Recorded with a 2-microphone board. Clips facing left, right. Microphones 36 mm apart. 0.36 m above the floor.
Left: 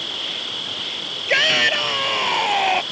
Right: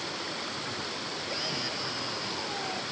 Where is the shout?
75° left (ahead or behind).